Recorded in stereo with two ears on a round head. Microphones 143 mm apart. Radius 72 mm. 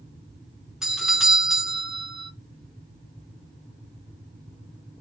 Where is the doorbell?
5° right (ahead or behind), 0.8 m.